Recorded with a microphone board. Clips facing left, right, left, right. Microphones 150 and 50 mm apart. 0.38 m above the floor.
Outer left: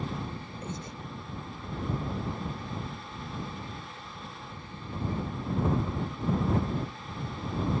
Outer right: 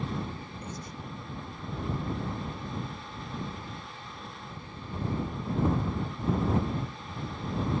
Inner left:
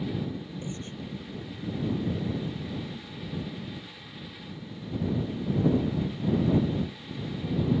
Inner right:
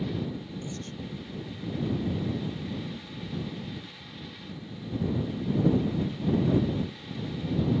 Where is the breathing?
25° left (ahead or behind).